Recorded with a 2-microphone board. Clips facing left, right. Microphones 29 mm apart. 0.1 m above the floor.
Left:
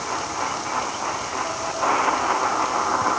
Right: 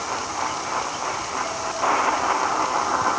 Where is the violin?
No violin in this recording.